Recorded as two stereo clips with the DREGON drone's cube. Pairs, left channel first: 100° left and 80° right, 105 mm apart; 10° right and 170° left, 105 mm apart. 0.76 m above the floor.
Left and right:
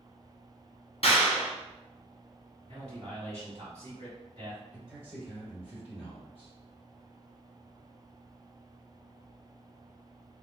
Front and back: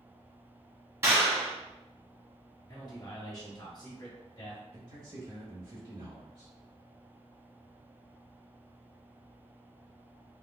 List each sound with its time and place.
1.0 s a clap: 110° left, 0.8 m
2.7 s a man speaking: 65° right, 1.7 m
4.7 s a man speaking: 160° right, 1.6 m